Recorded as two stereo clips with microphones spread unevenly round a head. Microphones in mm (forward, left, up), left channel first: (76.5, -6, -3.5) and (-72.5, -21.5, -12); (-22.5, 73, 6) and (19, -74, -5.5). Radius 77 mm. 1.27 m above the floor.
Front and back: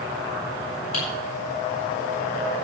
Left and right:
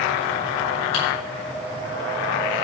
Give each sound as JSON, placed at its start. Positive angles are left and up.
{"t": 0.9, "sound": "typing on a keyboard", "azimuth_deg": 55, "distance_m": 8.0}